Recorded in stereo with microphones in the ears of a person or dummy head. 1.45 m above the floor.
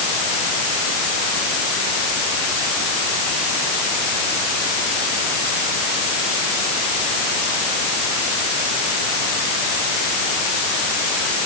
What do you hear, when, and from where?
Only background noise.